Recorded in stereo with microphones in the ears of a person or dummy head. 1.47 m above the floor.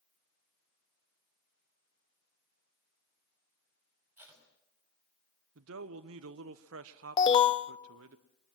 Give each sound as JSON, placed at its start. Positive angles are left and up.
{"t": 4.2, "sound": "tape being pulled", "side_deg": -10, "distance_m": 4.5}
{"t": 5.5, "sound": "a man speaking", "side_deg": -70, "distance_m": 0.9}
{"t": 7.2, "sound": "an alarm", "side_deg": 25, "distance_m": 0.5}